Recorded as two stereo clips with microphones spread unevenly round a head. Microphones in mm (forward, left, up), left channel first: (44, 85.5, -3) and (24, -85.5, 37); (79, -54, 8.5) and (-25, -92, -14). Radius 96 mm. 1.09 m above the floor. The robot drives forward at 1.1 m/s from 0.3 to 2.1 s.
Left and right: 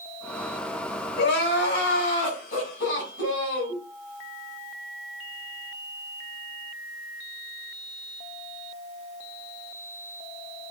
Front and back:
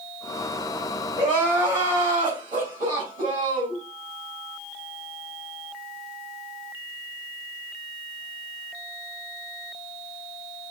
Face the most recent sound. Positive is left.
turn(degrees=135)